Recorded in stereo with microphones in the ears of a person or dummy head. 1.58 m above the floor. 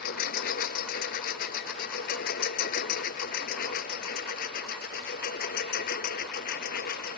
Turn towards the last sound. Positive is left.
turn(degrees=55)  # may be behind; listen again after turning